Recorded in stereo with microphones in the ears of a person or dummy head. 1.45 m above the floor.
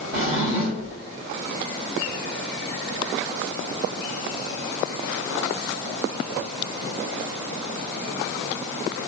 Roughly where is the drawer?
Right.